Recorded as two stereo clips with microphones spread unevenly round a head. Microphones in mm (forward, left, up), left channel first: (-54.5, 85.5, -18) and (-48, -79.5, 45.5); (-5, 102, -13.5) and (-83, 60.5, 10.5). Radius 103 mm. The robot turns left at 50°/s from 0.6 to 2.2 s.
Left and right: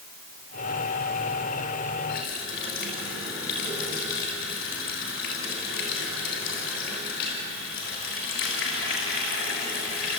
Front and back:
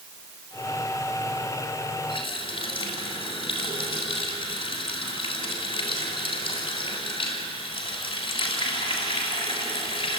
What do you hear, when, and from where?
2.1 s a running tap: 45° left, 7.5 m; by 10.2 s 40° left, 7.5 m